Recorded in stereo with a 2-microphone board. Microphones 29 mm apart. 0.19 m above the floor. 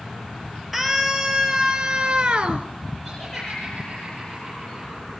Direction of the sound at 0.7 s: 5° right (ahead or behind).